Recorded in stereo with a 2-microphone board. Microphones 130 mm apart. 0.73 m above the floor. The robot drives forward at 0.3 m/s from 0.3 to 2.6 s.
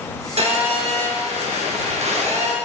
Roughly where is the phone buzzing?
Right.